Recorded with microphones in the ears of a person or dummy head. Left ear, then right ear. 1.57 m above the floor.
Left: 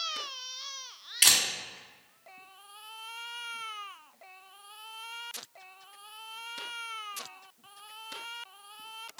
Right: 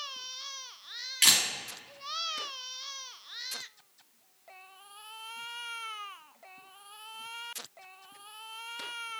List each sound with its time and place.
1.2 s a camera shutter: centre (ahead or behind), 1.9 m